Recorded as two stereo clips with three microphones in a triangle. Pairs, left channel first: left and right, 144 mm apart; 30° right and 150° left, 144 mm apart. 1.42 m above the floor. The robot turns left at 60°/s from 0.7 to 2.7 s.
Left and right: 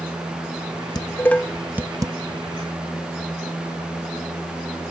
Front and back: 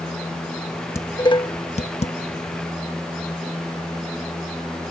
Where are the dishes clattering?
35° left; by 2.1 s 35° right.